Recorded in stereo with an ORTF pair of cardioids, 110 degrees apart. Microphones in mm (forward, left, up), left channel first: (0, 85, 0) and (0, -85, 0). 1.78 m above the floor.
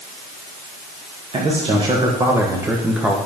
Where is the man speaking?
35° right, 1.8 m; by 3.2 s straight ahead, 1.3 m.